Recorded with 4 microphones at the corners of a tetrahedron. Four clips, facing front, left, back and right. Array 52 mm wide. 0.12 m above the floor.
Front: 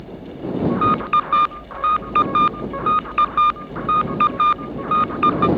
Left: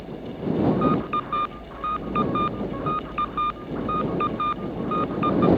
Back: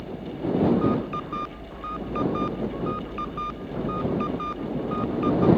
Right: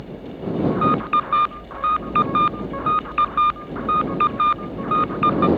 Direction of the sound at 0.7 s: 25° right.